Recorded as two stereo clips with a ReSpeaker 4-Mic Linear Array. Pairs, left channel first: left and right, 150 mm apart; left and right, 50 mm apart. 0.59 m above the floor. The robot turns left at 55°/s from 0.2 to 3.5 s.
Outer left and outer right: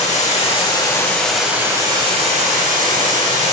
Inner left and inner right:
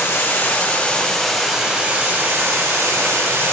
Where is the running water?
65° left, 3 m; by 3.5 s 120° right, 3 m.